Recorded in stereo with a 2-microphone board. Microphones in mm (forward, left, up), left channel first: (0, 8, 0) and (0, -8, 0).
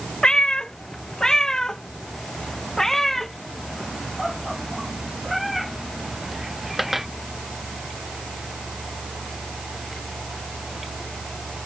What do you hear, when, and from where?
0.2 s a cat meowing: 50° left (ahead or behind); by 7.1 s 15° right (ahead or behind)